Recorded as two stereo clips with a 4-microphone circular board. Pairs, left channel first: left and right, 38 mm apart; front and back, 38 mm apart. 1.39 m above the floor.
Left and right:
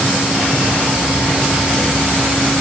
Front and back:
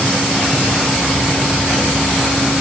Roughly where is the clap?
I don't hear a clap.